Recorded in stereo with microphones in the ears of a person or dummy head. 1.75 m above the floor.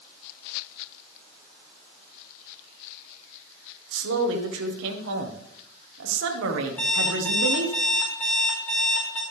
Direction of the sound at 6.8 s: 15° left (ahead or behind).